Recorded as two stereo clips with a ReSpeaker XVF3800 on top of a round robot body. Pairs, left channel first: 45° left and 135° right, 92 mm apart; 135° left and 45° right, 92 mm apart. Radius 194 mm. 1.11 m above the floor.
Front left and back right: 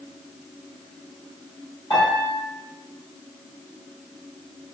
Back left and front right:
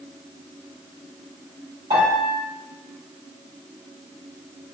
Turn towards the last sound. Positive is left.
turn(degrees=-5)